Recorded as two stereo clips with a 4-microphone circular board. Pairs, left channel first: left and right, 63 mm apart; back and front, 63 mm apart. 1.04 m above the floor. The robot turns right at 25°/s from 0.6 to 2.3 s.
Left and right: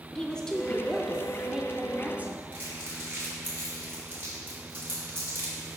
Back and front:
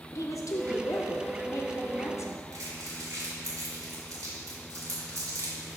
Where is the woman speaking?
165° left, 0.6 m; by 2.4 s 155° right, 0.6 m.